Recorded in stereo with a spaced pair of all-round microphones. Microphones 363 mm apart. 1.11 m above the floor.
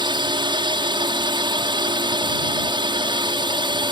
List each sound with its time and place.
0.0 s a drone: 10° right (ahead or behind)